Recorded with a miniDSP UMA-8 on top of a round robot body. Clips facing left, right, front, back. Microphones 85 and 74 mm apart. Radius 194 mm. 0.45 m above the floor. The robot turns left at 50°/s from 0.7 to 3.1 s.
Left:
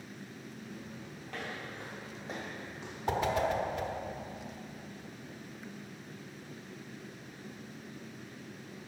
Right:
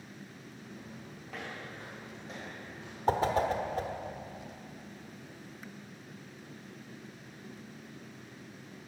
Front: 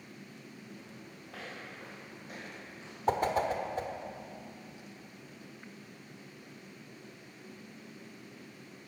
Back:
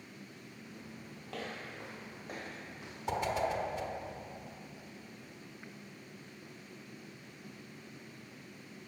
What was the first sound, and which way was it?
Footsteps, 175° right.